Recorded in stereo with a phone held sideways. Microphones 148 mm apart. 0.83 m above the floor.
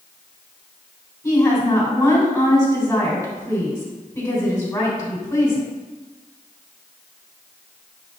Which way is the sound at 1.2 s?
25° left (ahead or behind).